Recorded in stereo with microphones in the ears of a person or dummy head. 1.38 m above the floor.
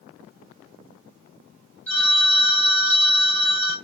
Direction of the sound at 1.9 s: 5° left (ahead or behind).